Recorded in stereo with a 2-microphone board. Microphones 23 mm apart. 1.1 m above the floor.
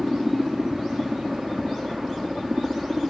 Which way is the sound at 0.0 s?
55° right (ahead or behind).